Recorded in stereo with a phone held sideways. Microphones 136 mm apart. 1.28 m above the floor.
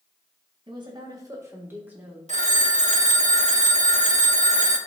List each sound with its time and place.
0.7 s a woman speaking: 40° right (ahead or behind), 1.7 m; by 2.2 s 10° right (ahead or behind), 1.8 m
2.3 s a phone ringing: 65° right (ahead or behind), 0.8 m